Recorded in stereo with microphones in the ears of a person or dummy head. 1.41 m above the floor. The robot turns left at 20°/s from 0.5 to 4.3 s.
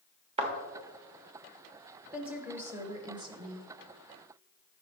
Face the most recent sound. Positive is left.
turn(degrees=-50)